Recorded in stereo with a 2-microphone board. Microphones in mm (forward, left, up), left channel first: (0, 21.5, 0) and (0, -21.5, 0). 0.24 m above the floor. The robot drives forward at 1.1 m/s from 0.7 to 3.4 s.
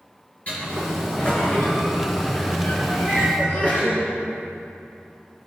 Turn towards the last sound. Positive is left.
turn(degrees=50)  # may be behind; listen again after turning